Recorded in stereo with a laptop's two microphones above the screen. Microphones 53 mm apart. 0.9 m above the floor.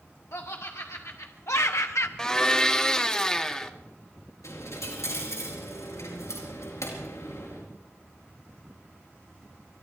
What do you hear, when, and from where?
0.3 s laughter: 75° left (ahead or behind), 1.8 m; by 2.1 s 65° left (ahead or behind), 0.6 m
2.2 s a blender: 15° left (ahead or behind), 1.2 m
4.4 s a dropped coin: 85° left, 5 m